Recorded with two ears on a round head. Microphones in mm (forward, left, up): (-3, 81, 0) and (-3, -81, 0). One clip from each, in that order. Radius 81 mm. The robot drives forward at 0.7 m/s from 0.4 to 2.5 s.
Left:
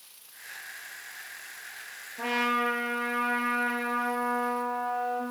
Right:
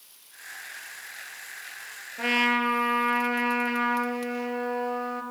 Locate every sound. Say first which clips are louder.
2.2 s a trumpet: right 3 dB; 80° right, 6 m